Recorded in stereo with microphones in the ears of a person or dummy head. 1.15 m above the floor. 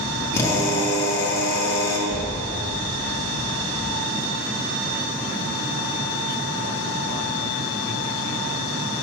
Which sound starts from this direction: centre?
A drill, at 0.3 s.